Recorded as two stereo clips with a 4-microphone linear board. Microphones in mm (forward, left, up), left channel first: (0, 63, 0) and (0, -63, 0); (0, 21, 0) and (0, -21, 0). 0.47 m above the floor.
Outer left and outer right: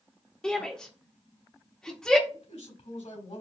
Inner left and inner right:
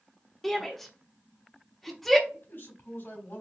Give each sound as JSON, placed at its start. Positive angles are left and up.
{"t": 0.4, "sound": "a shout", "side_deg": 5, "distance_m": 0.7}
{"t": 2.3, "sound": "a man speaking", "side_deg": 65, "distance_m": 3.5}